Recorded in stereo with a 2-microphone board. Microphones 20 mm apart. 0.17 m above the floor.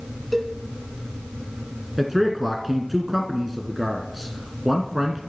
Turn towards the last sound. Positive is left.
turn(degrees=-15)  # may be behind; listen again after turning